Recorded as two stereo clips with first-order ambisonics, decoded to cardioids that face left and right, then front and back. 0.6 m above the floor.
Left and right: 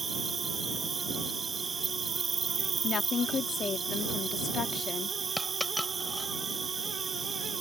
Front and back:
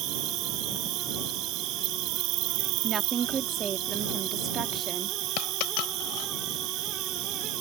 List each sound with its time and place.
0.0 s an insect: 160° right
2.8 s a woman speaking: 135° left
5.4 s a dropped coin: straight ahead